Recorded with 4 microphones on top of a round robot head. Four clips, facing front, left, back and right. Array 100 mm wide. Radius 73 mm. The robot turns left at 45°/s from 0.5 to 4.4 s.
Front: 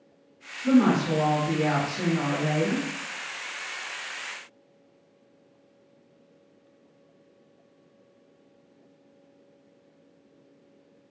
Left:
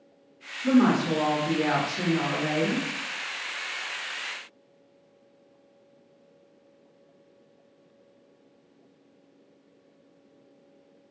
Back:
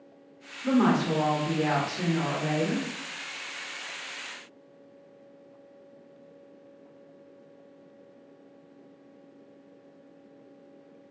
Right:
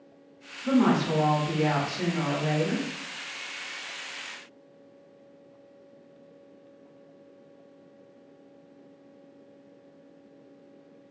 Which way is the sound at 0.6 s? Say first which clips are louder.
Left 2 dB, front 3 dB; 145° left.